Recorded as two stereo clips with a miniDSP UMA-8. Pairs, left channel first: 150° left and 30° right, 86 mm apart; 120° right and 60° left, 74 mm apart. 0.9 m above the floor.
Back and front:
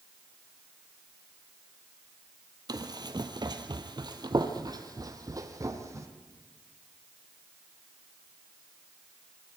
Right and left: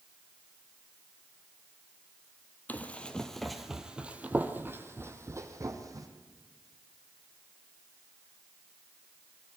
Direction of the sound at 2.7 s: 55° right.